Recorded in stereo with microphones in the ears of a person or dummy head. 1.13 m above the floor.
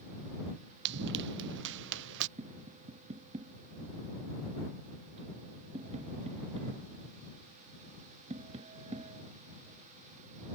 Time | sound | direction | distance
0.8 | running footsteps | 60° right (ahead or behind) | ?
2.4 | tapping | 35° right (ahead or behind) | ?